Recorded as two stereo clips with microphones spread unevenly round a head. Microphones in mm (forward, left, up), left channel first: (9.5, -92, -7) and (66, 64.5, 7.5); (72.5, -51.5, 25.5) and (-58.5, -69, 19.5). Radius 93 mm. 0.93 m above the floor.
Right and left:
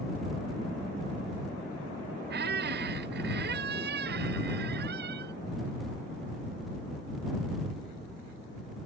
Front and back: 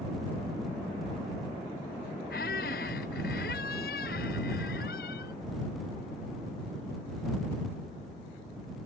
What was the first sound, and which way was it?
A squeak, 50° left.